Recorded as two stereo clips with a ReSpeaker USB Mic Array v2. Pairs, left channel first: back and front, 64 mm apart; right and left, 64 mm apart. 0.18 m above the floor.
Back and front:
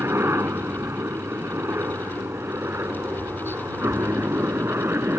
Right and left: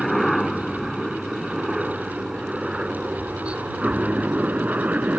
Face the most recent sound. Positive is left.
turn(degrees=35)